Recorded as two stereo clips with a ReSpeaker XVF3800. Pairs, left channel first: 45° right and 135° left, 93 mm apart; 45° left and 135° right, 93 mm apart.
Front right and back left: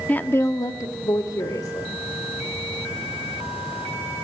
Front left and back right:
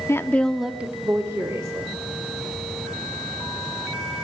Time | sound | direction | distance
0.1 | a woman speaking | 15° left | 1.1 m